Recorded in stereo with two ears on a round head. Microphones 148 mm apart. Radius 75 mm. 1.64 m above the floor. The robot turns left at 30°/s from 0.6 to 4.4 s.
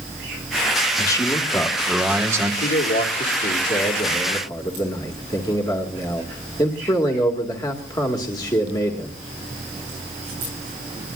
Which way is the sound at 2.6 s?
80° left.